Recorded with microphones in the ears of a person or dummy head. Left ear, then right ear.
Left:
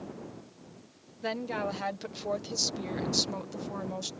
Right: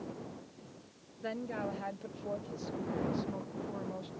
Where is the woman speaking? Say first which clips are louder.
Left 5 dB; 30° left (ahead or behind); by 4.1 s 85° left.